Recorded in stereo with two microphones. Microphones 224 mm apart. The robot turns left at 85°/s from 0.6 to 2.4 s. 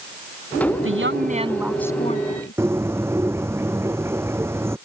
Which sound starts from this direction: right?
A woman speaking, at 0.8 s.